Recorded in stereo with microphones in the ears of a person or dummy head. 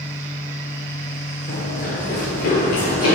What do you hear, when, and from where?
1.5 s running footsteps: 25° left (ahead or behind), 1.5 m; by 3.1 s 60° left (ahead or behind), 2.5 m